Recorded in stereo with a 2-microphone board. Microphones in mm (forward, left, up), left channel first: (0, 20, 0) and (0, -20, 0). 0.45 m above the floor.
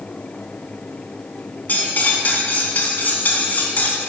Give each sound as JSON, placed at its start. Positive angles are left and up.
{"t": 1.7, "sound": "cutlery clinking", "side_deg": 45, "distance_m": 3.0}